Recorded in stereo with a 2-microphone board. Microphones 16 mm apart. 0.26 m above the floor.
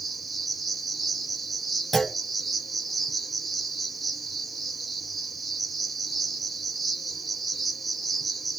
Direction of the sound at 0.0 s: Centre (ahead or behind).